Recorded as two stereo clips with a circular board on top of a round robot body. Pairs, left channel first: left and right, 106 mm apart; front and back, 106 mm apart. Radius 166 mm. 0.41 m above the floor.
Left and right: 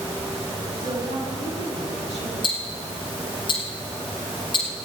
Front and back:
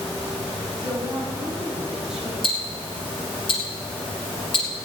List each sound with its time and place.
0.8 s a woman speaking: 90° right, 6 m; by 2.3 s 95° right, 4 m
2.4 s ticking: 45° left, 2.5 m